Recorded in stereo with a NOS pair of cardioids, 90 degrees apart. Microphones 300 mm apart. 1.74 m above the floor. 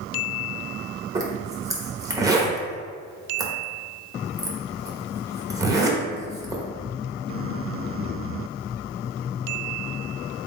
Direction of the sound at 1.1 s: 10° right.